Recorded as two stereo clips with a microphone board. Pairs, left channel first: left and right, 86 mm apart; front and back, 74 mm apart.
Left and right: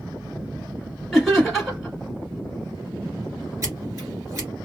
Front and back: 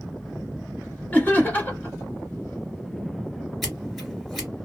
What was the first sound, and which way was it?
Laughter, 5° right.